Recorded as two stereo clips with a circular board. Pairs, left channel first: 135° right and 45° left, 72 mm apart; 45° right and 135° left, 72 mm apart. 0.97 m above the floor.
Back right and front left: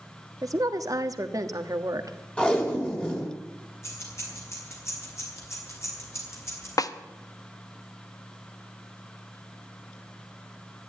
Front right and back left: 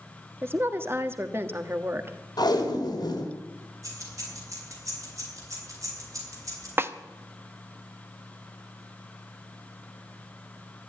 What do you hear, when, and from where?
0.4 s a woman speaking: 80° left, 1.3 m
2.4 s tape being pulled: 60° right, 3 m
3.8 s keys jangling: 175° left, 5 m
6.8 s a snare drum: 170° right, 0.8 m